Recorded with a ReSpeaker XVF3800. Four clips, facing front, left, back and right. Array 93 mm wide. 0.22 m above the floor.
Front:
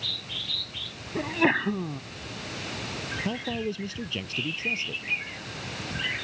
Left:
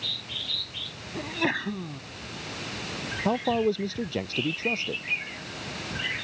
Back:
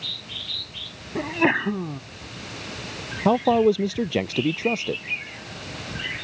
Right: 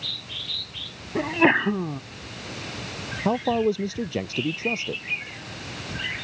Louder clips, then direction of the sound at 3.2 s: Right 2 dB, back 15 dB; 175° right.